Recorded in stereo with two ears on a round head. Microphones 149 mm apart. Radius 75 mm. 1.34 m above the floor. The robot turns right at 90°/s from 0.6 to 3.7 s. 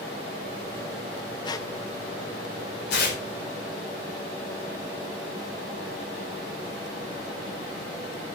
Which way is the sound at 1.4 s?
25° left (ahead or behind).